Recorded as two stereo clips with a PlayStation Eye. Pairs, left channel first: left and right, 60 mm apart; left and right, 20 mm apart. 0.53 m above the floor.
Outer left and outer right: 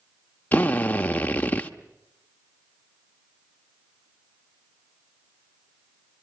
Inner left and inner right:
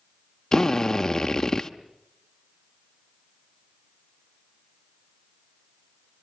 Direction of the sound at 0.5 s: 25° left (ahead or behind).